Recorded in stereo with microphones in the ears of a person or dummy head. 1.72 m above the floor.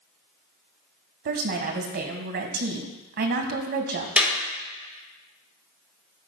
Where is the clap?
5° right (ahead or behind), 3.5 m.